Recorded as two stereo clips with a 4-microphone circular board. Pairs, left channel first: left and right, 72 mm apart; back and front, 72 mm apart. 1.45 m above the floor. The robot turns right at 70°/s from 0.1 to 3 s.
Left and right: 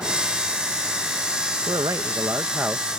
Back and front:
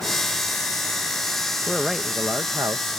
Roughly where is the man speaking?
Right.